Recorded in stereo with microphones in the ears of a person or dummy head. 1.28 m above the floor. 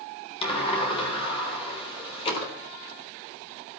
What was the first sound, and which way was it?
A sliding door, 30° left (ahead or behind).